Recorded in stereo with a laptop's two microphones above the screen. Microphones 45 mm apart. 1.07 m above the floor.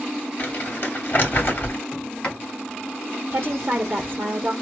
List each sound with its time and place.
0.4 s crumpling: 40° left (ahead or behind), 3 m
1.9 s a sliding door: 25° left (ahead or behind), 2.5 m
3.3 s a woman speaking: 50° right (ahead or behind), 0.7 m